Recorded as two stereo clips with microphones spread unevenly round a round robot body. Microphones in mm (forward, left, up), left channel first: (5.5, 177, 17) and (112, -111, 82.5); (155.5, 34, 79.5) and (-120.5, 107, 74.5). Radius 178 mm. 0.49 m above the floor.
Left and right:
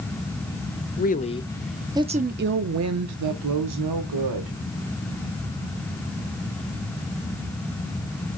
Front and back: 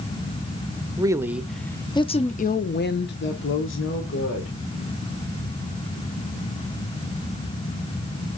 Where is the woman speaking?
95° left, 0.9 m; by 4.6 s 60° right, 1.5 m.